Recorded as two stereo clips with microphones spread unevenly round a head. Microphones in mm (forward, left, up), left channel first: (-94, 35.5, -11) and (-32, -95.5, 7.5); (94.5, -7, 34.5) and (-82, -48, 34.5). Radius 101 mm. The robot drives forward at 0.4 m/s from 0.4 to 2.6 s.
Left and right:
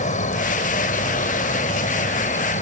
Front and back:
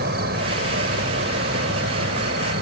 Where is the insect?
150° left.